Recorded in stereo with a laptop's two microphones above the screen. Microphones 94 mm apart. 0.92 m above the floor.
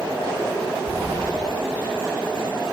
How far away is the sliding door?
About 5.5 m.